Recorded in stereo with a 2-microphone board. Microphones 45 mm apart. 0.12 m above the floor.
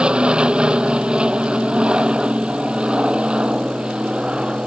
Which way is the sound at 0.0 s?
20° right (ahead or behind).